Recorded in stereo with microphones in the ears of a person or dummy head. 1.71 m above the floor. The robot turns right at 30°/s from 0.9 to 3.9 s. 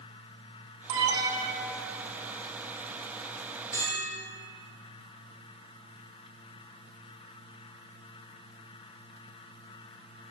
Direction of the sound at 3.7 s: 15° right (ahead or behind).